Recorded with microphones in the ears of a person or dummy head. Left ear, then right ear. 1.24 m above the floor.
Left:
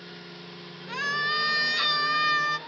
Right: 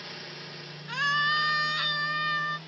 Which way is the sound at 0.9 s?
Centre (ahead or behind).